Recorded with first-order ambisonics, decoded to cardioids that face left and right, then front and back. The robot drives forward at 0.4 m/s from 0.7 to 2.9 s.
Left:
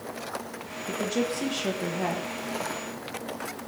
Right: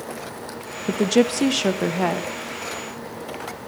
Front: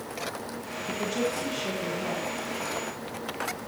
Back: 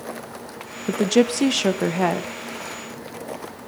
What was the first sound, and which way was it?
A woman speaking, 140° right.